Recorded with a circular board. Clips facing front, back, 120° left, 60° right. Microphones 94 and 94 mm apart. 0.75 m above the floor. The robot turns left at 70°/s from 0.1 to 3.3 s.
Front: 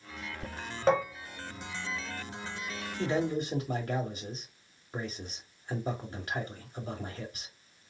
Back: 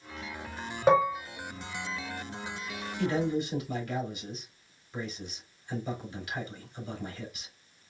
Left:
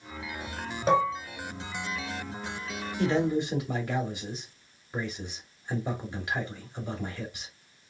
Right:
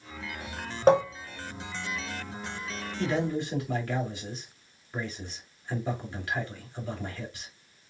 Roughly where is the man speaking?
Left.